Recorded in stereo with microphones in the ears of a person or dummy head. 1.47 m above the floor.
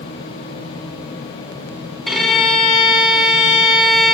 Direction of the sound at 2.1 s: 5° right (ahead or behind).